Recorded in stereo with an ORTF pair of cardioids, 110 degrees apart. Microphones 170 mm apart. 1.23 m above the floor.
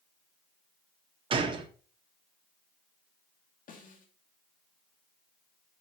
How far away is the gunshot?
About 1.5 m.